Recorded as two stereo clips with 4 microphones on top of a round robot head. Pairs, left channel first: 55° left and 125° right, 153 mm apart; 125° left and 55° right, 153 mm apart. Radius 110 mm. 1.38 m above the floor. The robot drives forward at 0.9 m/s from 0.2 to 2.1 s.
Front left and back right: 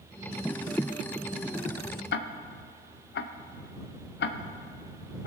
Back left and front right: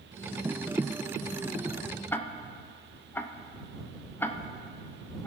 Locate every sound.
2.1 s ticking: 50° left, 0.5 m